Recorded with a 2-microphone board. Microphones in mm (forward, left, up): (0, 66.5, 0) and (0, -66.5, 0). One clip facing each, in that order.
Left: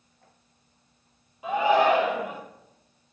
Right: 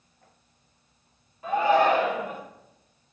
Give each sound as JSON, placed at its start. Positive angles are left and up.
{"t": 1.4, "sound": "a shout", "side_deg": 15, "distance_m": 5.0}